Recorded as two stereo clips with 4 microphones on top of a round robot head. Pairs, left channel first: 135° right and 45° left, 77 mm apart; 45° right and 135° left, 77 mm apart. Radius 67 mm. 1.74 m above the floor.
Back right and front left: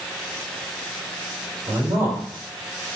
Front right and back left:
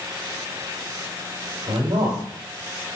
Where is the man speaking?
100° left, 1.9 m.